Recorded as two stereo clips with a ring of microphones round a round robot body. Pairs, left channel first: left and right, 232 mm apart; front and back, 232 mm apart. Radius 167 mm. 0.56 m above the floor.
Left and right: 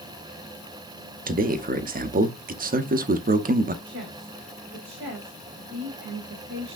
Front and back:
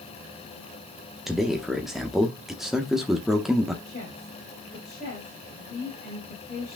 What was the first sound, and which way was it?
A man speaking, 95° right.